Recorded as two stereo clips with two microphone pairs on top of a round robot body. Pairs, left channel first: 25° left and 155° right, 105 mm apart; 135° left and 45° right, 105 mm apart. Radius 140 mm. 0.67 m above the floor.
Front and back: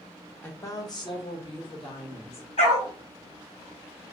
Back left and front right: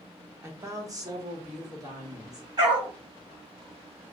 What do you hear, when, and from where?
0.4 s a woman speaking: 55° right, 1.0 m; by 2.5 s straight ahead, 2 m
2.6 s a dog barking: 5° left, 1.7 m